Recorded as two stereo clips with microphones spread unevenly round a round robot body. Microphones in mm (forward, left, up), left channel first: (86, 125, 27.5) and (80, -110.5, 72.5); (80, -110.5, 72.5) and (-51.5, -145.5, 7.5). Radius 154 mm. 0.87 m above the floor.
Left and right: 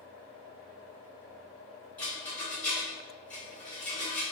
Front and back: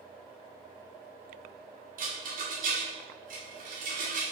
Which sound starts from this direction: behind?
A rattle, at 2.0 s.